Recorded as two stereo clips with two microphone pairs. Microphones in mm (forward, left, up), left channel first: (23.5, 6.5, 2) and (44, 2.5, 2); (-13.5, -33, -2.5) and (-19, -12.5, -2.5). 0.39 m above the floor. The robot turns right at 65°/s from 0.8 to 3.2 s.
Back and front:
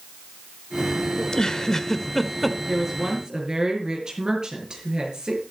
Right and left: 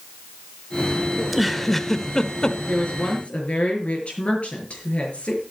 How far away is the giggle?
About 0.9 m.